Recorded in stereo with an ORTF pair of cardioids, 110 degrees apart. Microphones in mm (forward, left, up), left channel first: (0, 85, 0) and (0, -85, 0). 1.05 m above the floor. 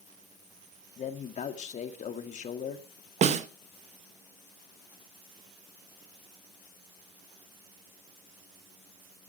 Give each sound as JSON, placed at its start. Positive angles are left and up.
{"t": 1.0, "sound": "a man speaking", "azimuth_deg": 45, "distance_m": 1.9}
{"t": 3.2, "sound": "a snare drum", "azimuth_deg": -45, "distance_m": 1.1}